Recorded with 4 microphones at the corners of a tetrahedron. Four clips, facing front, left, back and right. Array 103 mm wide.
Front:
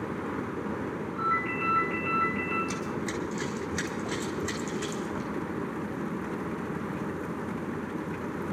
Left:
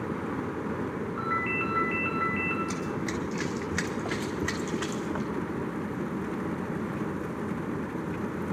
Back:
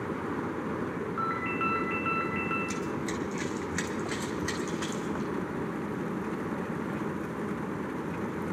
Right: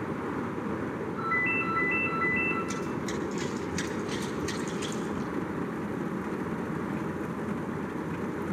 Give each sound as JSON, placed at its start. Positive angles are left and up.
{"t": 1.2, "sound": "a ringtone", "azimuth_deg": 145, "distance_m": 3.5}
{"t": 2.7, "sound": "running footsteps", "azimuth_deg": 45, "distance_m": 1.7}